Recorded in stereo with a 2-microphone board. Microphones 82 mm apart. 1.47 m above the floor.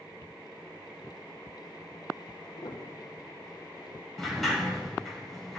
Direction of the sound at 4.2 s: Centre (ahead or behind).